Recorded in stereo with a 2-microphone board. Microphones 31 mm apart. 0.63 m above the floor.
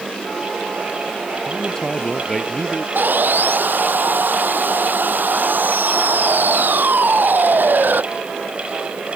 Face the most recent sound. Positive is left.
turn(degrees=-75)  # may be behind; listen again after turning